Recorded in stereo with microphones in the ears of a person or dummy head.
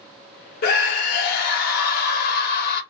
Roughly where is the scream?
Left.